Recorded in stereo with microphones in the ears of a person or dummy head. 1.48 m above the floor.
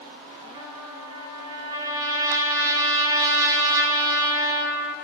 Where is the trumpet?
20° right (ahead or behind), 0.7 m.